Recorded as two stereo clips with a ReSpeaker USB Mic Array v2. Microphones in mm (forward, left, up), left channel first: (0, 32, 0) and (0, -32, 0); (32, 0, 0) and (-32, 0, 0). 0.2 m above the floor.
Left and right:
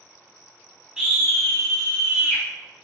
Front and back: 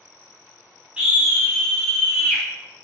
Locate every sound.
1.0 s a scream: 150° right, 1.3 m; by 2.4 s 55° left, 1.9 m